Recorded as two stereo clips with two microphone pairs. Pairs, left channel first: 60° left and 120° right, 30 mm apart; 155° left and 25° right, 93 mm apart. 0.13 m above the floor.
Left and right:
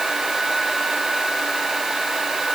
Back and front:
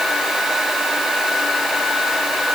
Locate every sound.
Only background noise.